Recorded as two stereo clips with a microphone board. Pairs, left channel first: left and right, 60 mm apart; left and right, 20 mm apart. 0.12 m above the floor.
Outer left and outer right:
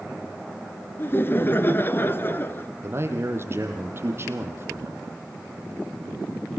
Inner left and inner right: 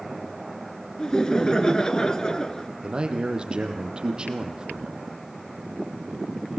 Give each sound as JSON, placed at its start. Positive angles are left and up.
{"t": 1.0, "sound": "laughter", "side_deg": 35, "distance_m": 1.5}
{"t": 2.8, "sound": "a man speaking", "side_deg": -40, "distance_m": 4.0}